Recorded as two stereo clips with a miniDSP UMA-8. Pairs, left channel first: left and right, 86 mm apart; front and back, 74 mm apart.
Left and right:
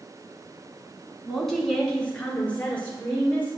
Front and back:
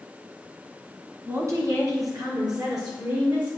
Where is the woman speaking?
Straight behind, 1.9 m; by 3.5 s 160° left, 4.5 m.